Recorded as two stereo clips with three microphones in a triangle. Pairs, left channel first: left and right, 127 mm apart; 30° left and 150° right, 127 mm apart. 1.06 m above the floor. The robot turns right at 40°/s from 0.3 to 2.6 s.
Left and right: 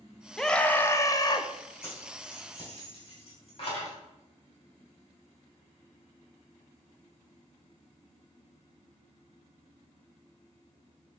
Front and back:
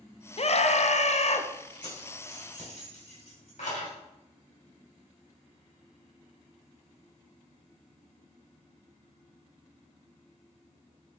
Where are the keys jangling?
15° left, 3 m; by 4.0 s 45° left, 3 m.